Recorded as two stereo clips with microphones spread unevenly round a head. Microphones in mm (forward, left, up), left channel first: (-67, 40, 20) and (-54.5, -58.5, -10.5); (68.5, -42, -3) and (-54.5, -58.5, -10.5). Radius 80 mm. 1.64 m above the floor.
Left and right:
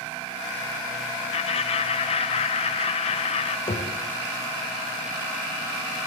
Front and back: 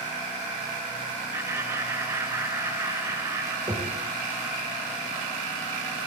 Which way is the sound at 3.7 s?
120° left.